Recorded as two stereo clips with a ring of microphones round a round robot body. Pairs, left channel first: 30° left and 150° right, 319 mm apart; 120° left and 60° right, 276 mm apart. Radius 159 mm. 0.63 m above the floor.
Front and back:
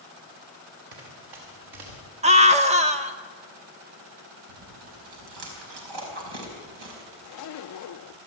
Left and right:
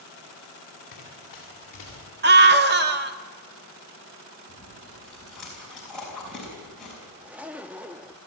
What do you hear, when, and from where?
0.9 s running footsteps: 175° right, 7 m; by 2.0 s 170° right, 7.5 m
2.2 s a scream: 90° right, 1.3 m
4.5 s chewing: 150° right, 5 m
7.2 s a zipper: 25° left, 0.6 m